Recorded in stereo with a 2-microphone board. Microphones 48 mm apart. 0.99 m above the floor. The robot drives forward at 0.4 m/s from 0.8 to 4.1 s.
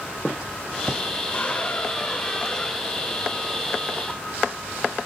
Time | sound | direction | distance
1.3 | a squeak | 35° left (ahead or behind) | 0.9 m